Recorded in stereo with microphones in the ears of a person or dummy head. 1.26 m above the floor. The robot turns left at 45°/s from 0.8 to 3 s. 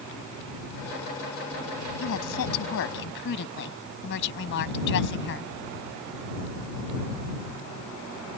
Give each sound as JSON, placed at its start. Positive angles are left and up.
{"t": 2.0, "sound": "a woman speaking", "azimuth_deg": 110}